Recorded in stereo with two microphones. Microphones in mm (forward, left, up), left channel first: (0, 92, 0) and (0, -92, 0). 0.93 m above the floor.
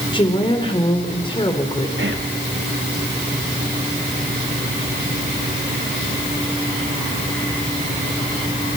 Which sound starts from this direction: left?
A woman speaking, at 0.1 s.